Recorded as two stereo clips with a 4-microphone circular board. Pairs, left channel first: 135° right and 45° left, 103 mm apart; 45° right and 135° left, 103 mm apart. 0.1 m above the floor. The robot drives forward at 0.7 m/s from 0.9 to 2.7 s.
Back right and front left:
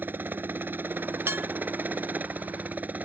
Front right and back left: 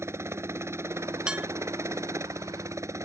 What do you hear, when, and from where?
0.0 s a helicopter: 100° left; by 3.1 s 105° left
1.3 s dishes clattering: 65° left; by 1.5 s 90° left